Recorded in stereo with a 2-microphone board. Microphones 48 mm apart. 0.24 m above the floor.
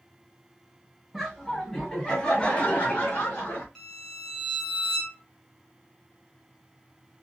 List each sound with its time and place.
1.1 s laughter: centre (ahead or behind), 1.9 m; by 3.6 s 40° left (ahead or behind), 1.6 m
3.8 s a violin: 10° left (ahead or behind), 1.2 m